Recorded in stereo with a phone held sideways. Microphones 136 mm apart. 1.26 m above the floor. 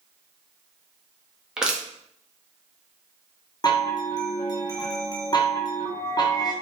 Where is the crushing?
5° right (ahead or behind), 0.6 m.